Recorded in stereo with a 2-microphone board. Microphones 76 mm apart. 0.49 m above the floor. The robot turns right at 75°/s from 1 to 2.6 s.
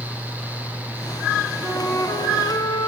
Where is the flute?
25° left, 4 m; by 2.9 s 95° left, 4 m.